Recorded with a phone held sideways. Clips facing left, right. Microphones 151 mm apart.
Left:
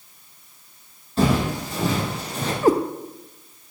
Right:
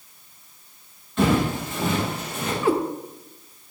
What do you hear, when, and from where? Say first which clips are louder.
1.2 s footsteps: even; 35° left (ahead or behind), 4 m
2.6 s a cat meowing: left 4 dB; 40° left (ahead or behind), 0.7 m